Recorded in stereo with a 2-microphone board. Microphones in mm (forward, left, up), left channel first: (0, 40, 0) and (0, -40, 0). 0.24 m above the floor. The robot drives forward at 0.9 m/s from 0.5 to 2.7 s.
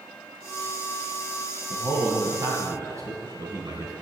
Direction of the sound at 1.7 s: 50° right (ahead or behind).